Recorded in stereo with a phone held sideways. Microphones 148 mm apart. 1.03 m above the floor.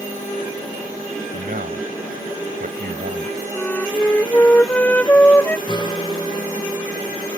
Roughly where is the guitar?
Left.